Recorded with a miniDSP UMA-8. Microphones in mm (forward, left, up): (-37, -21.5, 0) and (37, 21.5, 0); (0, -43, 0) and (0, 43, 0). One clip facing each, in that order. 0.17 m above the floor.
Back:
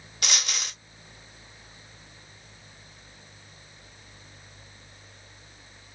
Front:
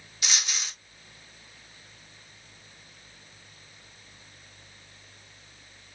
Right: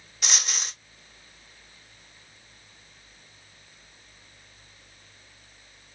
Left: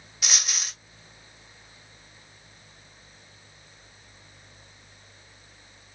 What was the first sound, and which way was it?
A dropped coin, straight behind.